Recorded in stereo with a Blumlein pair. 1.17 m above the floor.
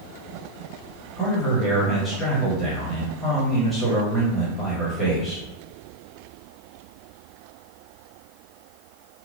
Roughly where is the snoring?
I don't hear snoring.